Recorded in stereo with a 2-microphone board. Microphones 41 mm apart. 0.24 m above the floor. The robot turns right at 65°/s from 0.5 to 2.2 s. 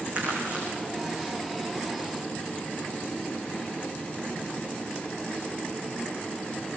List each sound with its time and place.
0.1 s crumpling: 35° right (ahead or behind), 7.5 m; by 0.7 s 45° right (ahead or behind), 7.5 m